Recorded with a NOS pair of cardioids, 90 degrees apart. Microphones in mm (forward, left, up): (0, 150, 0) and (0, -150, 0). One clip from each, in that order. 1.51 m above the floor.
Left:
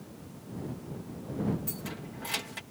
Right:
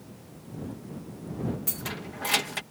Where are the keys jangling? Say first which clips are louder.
Right 5 dB; 50° right.